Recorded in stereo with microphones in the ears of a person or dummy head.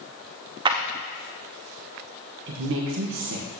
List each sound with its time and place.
0.7 s a clap: 20° right (ahead or behind), 0.7 m
2.5 s a woman speaking: 60° right (ahead or behind), 1.3 m